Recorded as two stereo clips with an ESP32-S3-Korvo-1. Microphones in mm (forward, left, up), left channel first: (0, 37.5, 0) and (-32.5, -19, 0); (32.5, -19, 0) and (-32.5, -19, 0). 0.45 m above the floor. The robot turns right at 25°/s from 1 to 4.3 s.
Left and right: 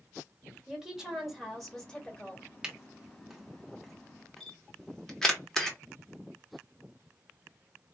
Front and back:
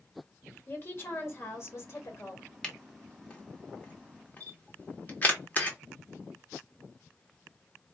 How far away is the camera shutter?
About 1.0 m.